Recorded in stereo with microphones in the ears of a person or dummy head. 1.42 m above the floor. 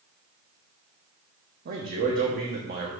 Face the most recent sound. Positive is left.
turn(degrees=-50)  # may be behind; listen again after turning